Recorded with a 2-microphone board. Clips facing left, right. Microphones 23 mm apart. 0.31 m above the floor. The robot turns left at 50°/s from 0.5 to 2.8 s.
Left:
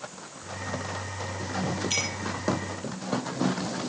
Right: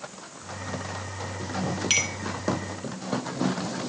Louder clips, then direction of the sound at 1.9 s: Right 6 dB; 65° right (ahead or behind).